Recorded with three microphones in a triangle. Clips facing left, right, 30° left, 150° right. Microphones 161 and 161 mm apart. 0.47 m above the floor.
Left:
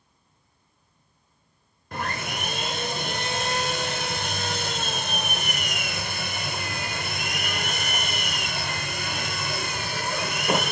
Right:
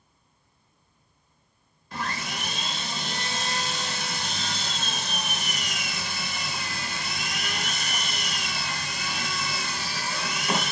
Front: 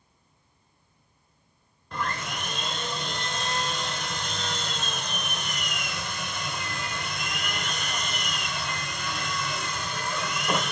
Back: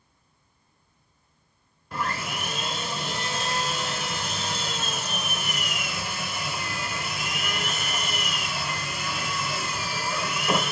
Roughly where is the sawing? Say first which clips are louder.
Left 2 dB, back 1 dB; behind left.